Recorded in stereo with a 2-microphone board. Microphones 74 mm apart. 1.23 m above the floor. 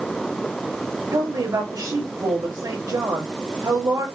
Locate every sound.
1.1 s a woman speaking: 80° right, 4 m